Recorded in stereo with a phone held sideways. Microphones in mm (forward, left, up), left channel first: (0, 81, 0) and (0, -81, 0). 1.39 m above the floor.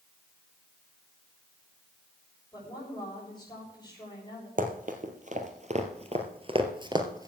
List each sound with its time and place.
2.5 s a woman speaking: 25° left (ahead or behind), 7 m
4.6 s running footsteps: 55° right (ahead or behind), 2.5 m; by 7.3 s 20° right (ahead or behind), 1.9 m